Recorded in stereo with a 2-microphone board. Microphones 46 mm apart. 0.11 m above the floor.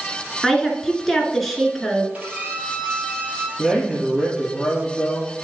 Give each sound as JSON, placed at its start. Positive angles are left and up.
{"t": 0.4, "sound": "a woman speaking", "side_deg": 5, "distance_m": 1.6}
{"t": 2.1, "sound": "a violin", "side_deg": -30, "distance_m": 1.9}
{"t": 3.6, "sound": "a man speaking", "side_deg": -5, "distance_m": 2.5}